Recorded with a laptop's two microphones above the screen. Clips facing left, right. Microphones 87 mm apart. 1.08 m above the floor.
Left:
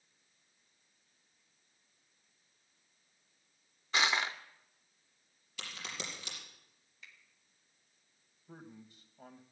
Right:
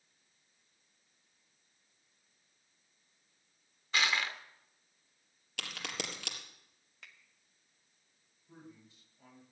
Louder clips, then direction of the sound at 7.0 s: Right 1 dB; 65° right (ahead or behind).